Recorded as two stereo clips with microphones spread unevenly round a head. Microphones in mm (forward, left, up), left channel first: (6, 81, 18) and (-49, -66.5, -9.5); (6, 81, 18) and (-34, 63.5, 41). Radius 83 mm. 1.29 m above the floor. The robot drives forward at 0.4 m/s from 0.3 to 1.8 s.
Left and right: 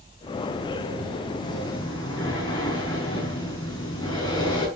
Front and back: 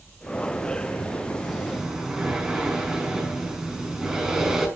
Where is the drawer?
I don't hear a drawer.